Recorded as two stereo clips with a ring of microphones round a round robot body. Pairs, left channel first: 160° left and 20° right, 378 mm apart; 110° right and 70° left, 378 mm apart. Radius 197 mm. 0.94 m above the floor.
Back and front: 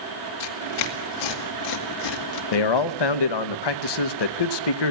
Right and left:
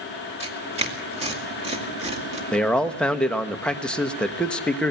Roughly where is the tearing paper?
Behind left.